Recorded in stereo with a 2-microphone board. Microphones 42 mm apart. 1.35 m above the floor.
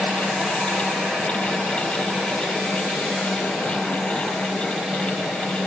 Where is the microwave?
I don't hear a microwave.